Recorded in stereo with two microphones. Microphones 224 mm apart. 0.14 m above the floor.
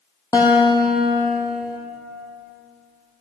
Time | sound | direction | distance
0.3 | a guitar | 15° left (ahead or behind) | 1.5 m